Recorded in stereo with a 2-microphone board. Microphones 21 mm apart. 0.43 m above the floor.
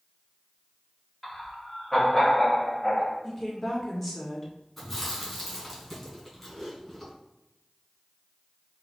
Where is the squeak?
No squeak in this recording.